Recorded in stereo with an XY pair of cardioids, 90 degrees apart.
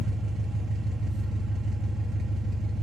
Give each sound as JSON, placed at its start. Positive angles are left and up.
{"t": 0.0, "sound": "an engine running", "azimuth_deg": -70, "distance_m": 0.8}